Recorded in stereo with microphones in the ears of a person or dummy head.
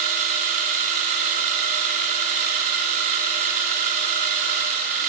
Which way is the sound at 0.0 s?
40° right (ahead or behind).